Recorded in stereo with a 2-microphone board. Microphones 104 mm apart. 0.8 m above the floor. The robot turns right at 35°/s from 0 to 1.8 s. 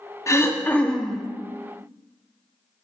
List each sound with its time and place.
0.3 s throat clearing: 150° left, 0.7 m; by 1.3 s 175° right, 0.7 m